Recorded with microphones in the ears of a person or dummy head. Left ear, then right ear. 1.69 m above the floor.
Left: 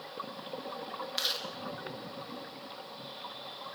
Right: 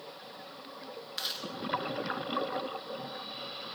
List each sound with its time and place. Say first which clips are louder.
1.2 s chewing: left 3 dB; 5° left (ahead or behind), 3 m